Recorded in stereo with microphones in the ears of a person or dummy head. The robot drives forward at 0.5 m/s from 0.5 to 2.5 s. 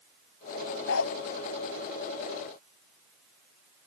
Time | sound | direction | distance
0.9 | a dog barking | 75° left (ahead or behind) | ?